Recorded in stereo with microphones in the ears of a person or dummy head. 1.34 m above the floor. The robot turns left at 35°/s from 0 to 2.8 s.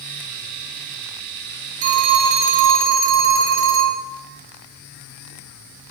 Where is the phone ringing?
40° right, 1.0 m; by 4.0 s 75° right, 1.0 m.